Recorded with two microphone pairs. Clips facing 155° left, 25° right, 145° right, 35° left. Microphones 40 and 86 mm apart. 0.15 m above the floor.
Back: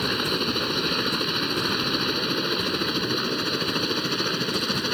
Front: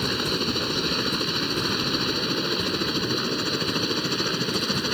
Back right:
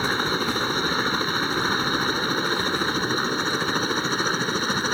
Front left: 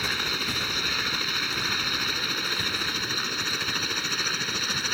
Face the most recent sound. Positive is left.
turn(degrees=-125)